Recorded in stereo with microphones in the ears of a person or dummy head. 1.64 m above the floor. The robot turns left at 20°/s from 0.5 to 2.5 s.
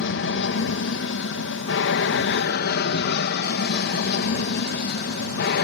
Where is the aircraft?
105° left; by 5.7 s 65° left.